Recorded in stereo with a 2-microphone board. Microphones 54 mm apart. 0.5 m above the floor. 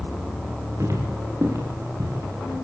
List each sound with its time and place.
0.8 s footsteps: 60° right (ahead or behind), 7 m; by 2.5 s 65° right (ahead or behind), 8.5 m